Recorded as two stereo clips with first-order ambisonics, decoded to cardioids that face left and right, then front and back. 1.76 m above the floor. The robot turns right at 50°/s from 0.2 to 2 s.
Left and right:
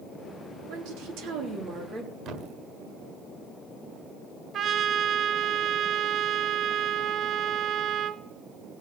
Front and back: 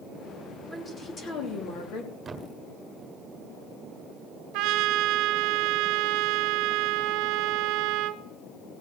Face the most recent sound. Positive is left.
turn(degrees=-150)